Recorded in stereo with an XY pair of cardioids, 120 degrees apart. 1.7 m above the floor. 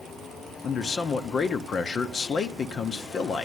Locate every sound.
0.6 s a man speaking: 50° left, 0.8 m